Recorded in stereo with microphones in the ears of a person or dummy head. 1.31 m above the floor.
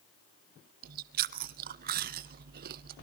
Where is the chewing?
50° right (ahead or behind), 0.6 m.